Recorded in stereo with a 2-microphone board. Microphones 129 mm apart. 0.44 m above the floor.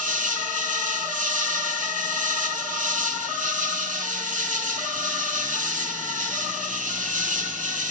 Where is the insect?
85° right, 0.9 m.